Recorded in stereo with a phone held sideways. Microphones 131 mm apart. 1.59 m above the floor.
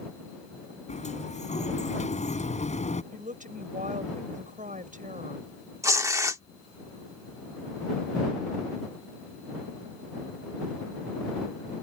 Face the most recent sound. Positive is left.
turn(degrees=-25)  # may be behind; listen again after turning